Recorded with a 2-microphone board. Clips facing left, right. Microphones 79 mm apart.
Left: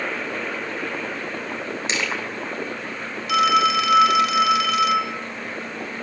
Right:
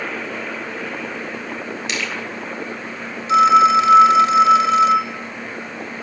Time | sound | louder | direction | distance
1.9 | crushing | left 1 dB | 25° left (ahead or behind) | 7 m
3.3 | a phone ringing | right 6 dB | 30° right (ahead or behind) | 0.9 m